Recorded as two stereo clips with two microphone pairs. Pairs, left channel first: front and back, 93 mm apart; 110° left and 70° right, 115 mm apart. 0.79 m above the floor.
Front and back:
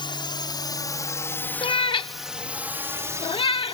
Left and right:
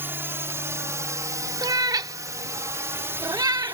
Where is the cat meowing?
10° right.